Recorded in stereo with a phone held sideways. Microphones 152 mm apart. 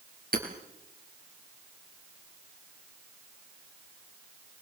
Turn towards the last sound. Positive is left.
turn(degrees=-80)